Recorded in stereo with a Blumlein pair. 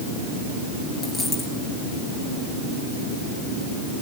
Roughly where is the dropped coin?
Ahead.